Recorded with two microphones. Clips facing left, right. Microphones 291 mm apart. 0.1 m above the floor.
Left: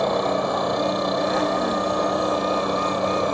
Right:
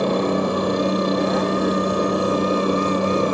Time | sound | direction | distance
0.0 | a helicopter | 35° right (ahead or behind) | ?